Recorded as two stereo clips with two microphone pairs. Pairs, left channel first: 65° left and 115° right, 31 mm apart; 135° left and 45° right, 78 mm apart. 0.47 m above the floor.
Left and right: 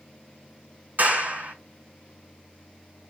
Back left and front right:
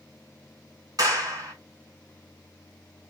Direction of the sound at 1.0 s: 85° right.